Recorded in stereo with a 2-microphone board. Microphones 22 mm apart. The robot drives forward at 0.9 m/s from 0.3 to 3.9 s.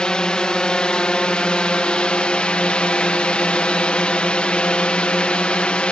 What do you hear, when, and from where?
0.0 s a drone: 45° left (ahead or behind); by 5.9 s 60° left (ahead or behind)